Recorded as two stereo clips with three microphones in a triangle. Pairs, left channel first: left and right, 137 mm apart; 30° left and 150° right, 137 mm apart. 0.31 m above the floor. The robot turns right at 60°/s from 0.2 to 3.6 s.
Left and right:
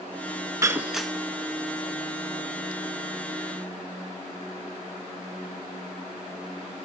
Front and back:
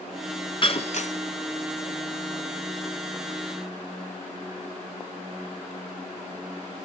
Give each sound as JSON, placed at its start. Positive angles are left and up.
{"t": 0.6, "sound": "breaking glass", "azimuth_deg": -25, "distance_m": 1.5}